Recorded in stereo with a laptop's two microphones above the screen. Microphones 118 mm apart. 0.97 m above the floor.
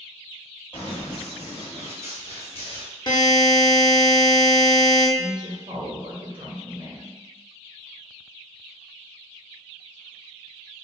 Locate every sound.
0.7 s running footsteps: 10° left (ahead or behind), 1.6 m; by 2.9 s 45° right (ahead or behind), 1.3 m
3.1 s a buzzer: 40° left (ahead or behind), 0.7 m
5.2 s a woman speaking: 50° right (ahead or behind), 0.8 m